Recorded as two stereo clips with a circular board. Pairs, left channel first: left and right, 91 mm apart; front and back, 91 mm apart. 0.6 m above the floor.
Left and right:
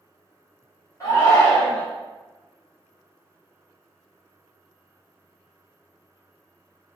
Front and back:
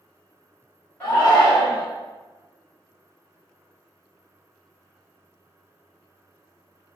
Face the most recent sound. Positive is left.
turn(degrees=60)